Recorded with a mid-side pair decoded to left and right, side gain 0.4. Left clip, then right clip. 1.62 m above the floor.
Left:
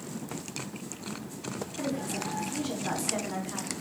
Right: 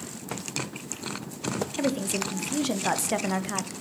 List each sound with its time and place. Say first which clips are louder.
1.8 s a woman speaking: right 4 dB; 70° right, 0.5 m